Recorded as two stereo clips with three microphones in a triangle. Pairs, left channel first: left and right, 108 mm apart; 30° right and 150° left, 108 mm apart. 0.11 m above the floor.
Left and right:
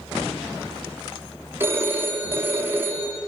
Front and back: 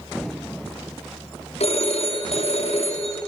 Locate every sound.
1.6 s a phone ringing: 20° right, 3.5 m